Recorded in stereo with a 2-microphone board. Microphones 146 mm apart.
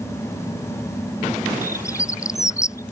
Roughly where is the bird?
Left.